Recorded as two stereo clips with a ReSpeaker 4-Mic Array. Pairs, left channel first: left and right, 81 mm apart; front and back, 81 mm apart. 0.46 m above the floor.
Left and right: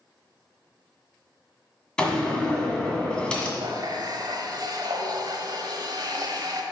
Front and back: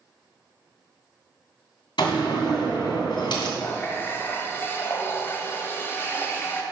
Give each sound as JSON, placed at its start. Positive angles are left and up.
{"t": 2.0, "sound": "a door slam", "azimuth_deg": 10, "distance_m": 2.0}
{"t": 3.6, "sound": "a running tap", "azimuth_deg": -60, "distance_m": 1.3}